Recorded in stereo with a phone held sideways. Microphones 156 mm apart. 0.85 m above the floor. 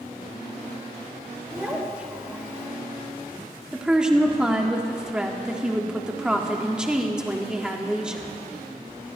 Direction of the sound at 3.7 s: 5° right (ahead or behind).